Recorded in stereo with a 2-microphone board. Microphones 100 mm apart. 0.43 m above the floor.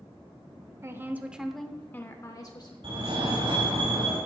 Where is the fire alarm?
60° right (ahead or behind), 3.5 m.